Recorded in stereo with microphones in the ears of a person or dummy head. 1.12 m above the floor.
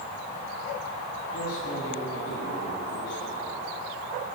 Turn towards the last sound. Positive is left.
turn(degrees=60)  # may be behind; listen again after turning